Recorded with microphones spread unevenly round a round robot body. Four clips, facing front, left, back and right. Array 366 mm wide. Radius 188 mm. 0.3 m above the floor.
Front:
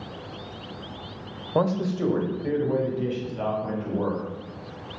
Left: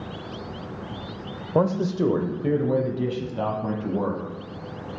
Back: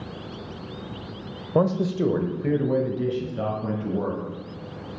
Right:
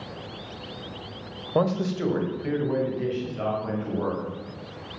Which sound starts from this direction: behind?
A man speaking, at 1.6 s.